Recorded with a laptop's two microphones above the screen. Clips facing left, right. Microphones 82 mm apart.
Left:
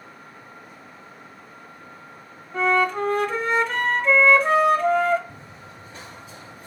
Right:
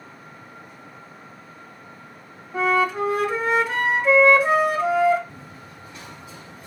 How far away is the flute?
About 0.7 m.